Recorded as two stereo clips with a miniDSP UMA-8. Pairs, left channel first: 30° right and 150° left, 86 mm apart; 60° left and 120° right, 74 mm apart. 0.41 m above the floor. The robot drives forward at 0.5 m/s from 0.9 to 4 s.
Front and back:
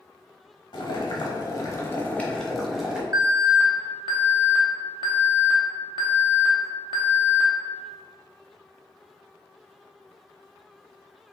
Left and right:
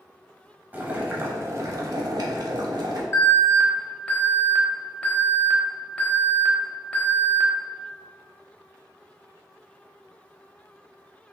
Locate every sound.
0.7 s boiling: 55° right, 0.9 m; by 3.0 s 130° right, 0.9 m
3.1 s an alarm: 110° left, 0.8 m; by 7.5 s 140° left, 1.0 m